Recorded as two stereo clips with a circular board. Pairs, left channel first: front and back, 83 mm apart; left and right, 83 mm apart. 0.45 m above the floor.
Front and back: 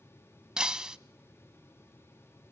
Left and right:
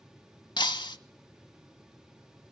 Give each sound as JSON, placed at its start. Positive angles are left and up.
{"t": 0.6, "sound": "breaking glass", "azimuth_deg": 100, "distance_m": 0.6}